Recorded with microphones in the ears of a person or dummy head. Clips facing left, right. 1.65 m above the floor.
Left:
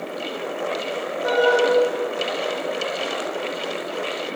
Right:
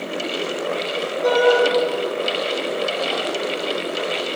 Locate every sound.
1.2 s a shout: 50° right (ahead or behind), 3.5 m